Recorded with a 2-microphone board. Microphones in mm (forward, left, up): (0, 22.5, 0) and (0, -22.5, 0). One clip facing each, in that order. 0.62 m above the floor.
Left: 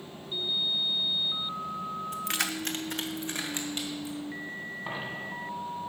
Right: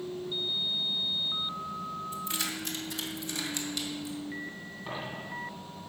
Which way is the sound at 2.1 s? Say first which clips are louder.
Left 3 dB; 65° left (ahead or behind).